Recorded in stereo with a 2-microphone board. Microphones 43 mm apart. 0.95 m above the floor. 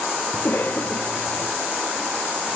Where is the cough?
40° left (ahead or behind), 0.6 m.